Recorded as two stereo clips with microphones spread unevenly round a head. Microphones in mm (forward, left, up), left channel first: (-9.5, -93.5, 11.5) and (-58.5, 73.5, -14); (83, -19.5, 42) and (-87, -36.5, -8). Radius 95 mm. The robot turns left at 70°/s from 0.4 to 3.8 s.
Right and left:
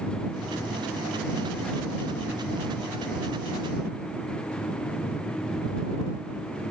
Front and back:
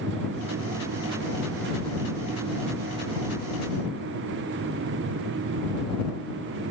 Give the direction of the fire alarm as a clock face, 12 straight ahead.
No fire alarm in this recording.